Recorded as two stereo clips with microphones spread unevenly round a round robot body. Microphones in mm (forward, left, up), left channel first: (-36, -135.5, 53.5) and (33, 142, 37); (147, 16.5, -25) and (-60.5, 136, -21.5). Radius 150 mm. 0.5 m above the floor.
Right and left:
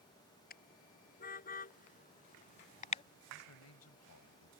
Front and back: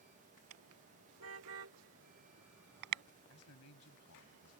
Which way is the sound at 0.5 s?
165° right.